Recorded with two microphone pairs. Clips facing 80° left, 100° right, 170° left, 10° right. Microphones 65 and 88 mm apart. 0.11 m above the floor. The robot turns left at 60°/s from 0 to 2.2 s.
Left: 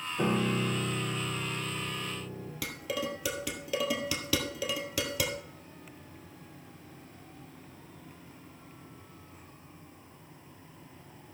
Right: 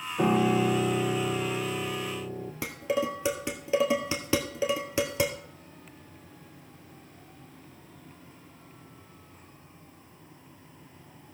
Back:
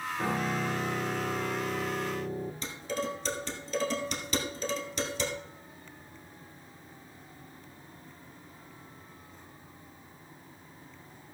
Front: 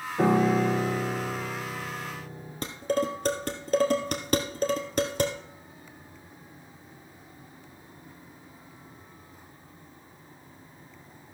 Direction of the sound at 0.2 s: 30° right.